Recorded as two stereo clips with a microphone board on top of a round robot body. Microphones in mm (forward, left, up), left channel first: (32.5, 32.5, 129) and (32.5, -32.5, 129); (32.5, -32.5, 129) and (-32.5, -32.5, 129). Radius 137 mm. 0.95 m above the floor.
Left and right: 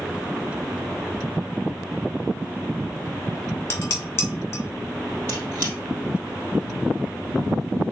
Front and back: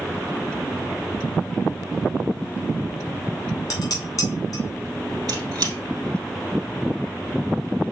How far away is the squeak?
About 2.5 m.